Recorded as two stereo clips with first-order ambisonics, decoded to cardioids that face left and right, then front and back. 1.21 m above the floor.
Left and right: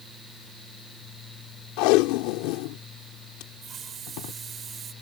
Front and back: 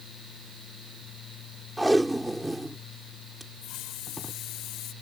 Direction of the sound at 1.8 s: 90° left.